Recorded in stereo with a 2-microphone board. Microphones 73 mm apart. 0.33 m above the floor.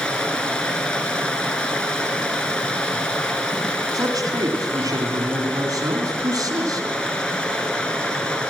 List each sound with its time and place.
0.0 s running water: 15° left (ahead or behind), 1.5 m
3.9 s a man speaking: 65° right (ahead or behind), 2.5 m